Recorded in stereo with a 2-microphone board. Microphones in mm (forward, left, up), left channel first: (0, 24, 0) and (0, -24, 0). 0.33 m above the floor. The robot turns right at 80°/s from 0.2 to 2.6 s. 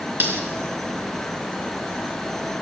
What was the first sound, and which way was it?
Cutlery clinking, 40° right (ahead or behind).